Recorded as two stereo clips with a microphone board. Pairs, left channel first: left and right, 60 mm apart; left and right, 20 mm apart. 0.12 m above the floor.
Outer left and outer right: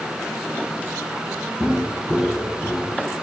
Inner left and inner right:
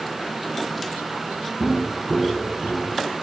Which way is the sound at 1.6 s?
5° right (ahead or behind).